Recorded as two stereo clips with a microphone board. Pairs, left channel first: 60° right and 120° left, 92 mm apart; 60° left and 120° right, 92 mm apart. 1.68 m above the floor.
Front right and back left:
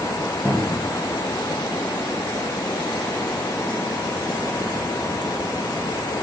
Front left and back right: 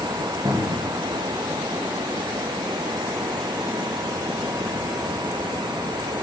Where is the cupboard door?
135° right, 1.2 m.